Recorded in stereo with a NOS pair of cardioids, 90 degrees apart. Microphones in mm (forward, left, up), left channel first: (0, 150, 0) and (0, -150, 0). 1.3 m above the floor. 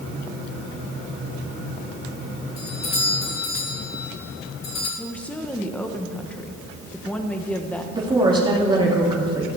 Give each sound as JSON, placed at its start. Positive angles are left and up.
{"t": 2.6, "sound": "a doorbell", "azimuth_deg": 60, "distance_m": 3.5}
{"t": 5.0, "sound": "a woman speaking", "azimuth_deg": 5, "distance_m": 1.4}
{"t": 7.9, "sound": "a woman speaking", "azimuth_deg": -15, "distance_m": 2.5}